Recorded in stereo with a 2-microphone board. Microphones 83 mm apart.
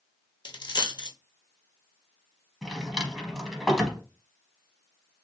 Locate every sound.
0.5 s a dropped coin: 75° left (ahead or behind), 0.8 m
2.6 s a drawer: centre (ahead or behind), 0.8 m